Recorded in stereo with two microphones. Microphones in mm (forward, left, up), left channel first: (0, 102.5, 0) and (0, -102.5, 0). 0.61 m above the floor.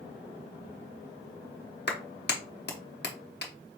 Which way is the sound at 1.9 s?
55° left (ahead or behind).